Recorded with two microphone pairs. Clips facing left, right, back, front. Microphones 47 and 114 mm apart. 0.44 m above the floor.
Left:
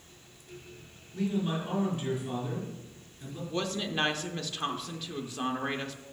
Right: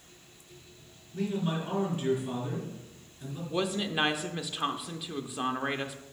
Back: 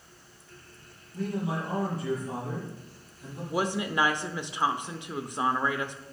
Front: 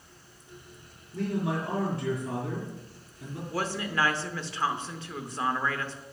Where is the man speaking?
15° right, 4 m.